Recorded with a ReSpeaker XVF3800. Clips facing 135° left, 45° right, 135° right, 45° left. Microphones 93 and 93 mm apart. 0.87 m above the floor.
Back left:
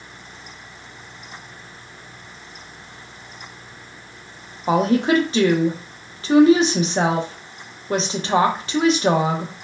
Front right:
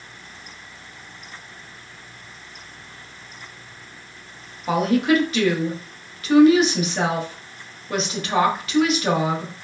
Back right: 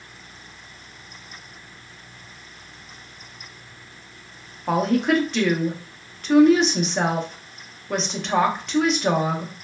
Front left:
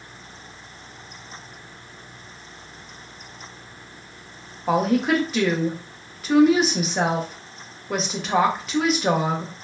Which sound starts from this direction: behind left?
A woman speaking, at 4.7 s.